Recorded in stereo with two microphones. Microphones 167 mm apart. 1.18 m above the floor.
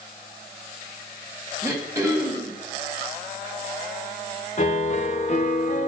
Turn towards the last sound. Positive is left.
turn(degrees=45)  # may be behind; listen again after turning